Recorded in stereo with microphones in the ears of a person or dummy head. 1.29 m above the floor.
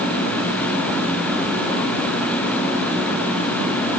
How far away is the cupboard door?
No cupboard door in this recording.